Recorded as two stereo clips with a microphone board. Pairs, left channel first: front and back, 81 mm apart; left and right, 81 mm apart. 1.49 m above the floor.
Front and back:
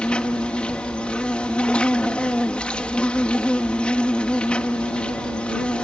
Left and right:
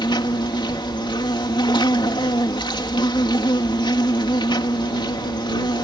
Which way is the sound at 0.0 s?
75° left.